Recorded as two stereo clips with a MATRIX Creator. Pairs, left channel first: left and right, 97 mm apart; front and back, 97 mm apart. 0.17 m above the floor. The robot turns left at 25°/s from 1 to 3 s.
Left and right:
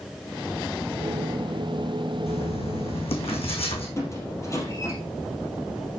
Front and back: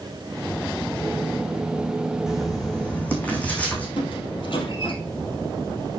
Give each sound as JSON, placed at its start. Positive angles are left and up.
{"t": 2.3, "sound": "writing", "azimuth_deg": 95, "distance_m": 3.0}
{"t": 4.0, "sound": "a squeak", "azimuth_deg": 30, "distance_m": 3.0}